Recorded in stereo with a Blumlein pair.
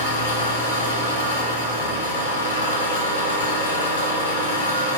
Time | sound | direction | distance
0.0 | an engine running | 70° left | 1.0 m